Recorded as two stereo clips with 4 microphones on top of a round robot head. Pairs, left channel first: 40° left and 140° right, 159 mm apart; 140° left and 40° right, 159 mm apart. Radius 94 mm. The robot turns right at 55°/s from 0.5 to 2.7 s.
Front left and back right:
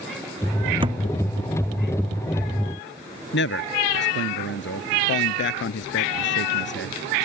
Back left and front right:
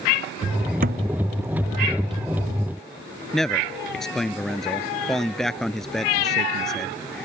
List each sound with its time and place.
0.8 s a thud: 80° right; by 1.0 s 70° right
3.3 s a man speaking: 50° left